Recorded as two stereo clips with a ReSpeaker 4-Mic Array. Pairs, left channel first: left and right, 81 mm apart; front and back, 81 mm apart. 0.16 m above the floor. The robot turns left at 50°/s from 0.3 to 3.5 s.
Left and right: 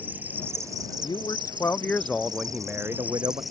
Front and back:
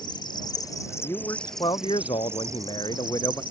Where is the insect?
20° right; by 3.5 s straight behind.